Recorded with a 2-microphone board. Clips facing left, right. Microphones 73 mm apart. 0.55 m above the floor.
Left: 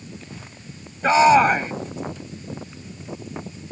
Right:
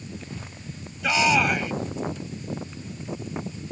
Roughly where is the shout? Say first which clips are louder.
Left 8 dB; left.